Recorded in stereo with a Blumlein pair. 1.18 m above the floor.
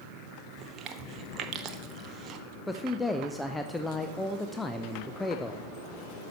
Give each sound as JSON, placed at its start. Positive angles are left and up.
{"t": 0.6, "sound": "chewing", "azimuth_deg": -30, "distance_m": 0.8}
{"t": 2.7, "sound": "a man speaking", "azimuth_deg": 5, "distance_m": 0.6}